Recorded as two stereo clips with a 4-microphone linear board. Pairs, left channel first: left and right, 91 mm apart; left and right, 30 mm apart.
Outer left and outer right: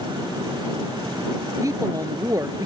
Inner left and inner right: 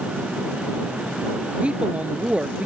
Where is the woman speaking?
35° right (ahead or behind).